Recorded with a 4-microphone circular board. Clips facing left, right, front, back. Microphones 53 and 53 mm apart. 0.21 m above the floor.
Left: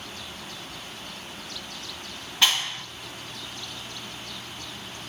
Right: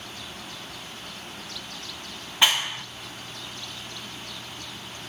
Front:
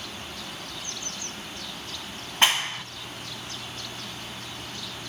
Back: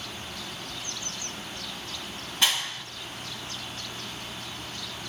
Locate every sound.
2.4 s a clap: 30° right, 1.1 m